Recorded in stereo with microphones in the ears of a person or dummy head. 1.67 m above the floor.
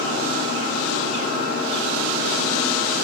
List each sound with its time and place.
0.0 s a machine running: 75° right (ahead or behind), 3.5 m